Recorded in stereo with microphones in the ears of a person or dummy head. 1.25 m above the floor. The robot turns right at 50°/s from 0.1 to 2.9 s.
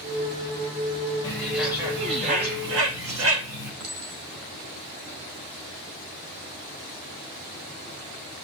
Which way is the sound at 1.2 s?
15° left (ahead or behind).